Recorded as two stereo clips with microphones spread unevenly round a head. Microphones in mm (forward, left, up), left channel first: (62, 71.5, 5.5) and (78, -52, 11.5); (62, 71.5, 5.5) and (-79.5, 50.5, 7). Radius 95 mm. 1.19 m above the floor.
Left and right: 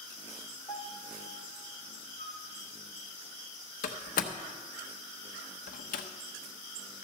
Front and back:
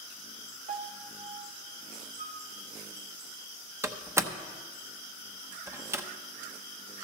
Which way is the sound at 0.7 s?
165° left.